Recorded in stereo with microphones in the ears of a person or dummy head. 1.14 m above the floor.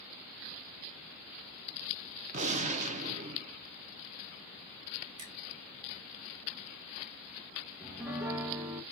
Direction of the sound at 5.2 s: 85° right.